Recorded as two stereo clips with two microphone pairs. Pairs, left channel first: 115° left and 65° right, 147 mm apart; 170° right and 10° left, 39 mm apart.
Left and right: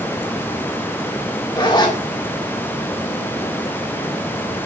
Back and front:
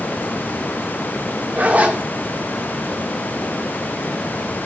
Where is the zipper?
55° left, 1.9 m.